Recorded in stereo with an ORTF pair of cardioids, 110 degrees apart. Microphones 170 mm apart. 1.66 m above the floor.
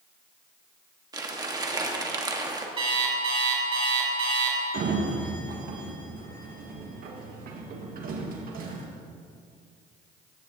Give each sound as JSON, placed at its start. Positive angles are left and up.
{"t": 1.1, "sound": "crumpling", "azimuth_deg": -20, "distance_m": 1.4}
{"t": 2.8, "sound": "an alarm clock", "azimuth_deg": -30, "distance_m": 4.0}
{"t": 4.7, "sound": "a sliding door", "azimuth_deg": -60, "distance_m": 1.6}